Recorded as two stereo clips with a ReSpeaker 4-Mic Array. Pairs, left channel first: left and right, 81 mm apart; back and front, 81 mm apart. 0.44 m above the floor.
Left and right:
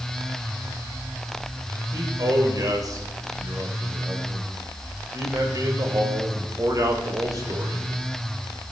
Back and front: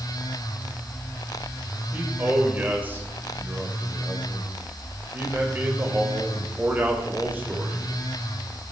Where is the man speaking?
60° right, 2.5 m.